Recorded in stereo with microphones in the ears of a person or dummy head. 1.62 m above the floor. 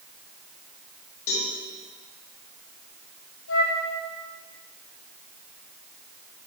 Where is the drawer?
I don't hear a drawer.